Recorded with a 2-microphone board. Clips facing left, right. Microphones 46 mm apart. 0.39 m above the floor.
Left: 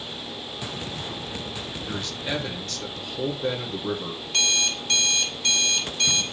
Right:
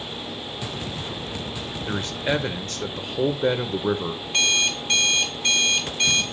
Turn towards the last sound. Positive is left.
turn(degrees=-30)  # may be behind; listen again after turning